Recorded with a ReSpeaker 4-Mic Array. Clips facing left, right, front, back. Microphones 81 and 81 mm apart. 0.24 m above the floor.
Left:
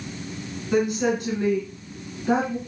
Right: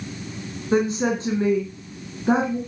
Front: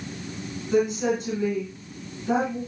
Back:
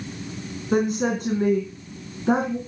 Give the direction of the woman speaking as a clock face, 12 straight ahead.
5 o'clock.